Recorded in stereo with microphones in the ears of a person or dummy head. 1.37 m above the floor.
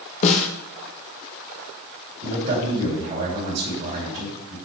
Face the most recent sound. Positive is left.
turn(degrees=-40)  # may be behind; listen again after turning